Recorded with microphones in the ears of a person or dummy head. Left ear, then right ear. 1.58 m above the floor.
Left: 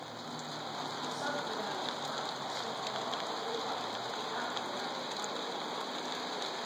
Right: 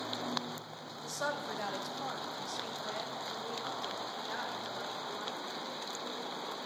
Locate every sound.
1.0 s a woman speaking: 65° right (ahead or behind), 1.1 m; by 5.5 s 35° right (ahead or behind), 3 m